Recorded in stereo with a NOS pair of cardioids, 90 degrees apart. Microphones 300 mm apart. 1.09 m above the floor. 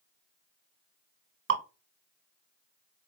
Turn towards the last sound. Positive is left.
turn(degrees=-45)